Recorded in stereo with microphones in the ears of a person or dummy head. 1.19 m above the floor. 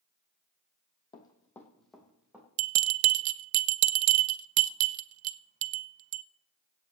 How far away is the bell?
About 0.5 m.